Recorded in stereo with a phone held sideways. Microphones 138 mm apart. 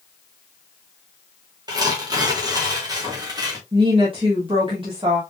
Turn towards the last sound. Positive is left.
turn(degrees=-40)  # may be behind; listen again after turning